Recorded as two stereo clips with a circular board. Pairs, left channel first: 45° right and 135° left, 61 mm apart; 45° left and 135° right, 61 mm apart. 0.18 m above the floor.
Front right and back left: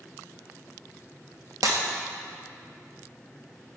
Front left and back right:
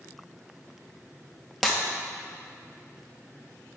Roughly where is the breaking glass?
Behind left.